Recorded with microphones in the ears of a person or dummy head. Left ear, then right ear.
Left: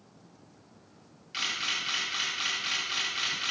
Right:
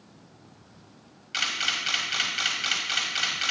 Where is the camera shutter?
15° right (ahead or behind), 1.5 m.